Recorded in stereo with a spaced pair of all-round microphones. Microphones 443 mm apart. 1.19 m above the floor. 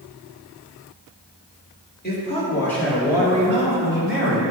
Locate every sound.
2.0 s a man speaking: 20° left (ahead or behind), 2.5 m; by 4.4 s 30° right (ahead or behind), 3 m